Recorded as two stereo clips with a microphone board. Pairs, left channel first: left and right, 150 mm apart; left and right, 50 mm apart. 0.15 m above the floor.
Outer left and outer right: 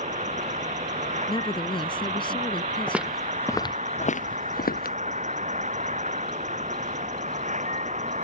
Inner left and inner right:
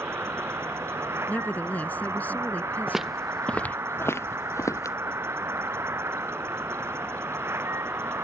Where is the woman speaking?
35° left (ahead or behind).